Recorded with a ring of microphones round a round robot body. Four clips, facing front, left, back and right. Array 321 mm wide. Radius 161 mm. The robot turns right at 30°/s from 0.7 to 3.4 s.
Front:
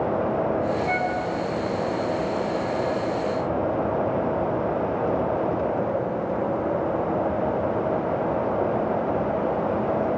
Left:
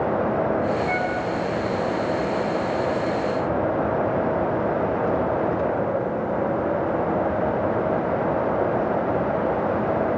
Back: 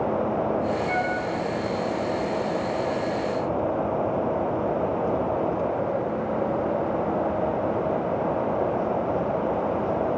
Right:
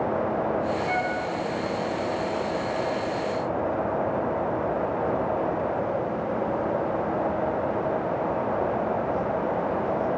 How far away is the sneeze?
I don't hear a sneeze.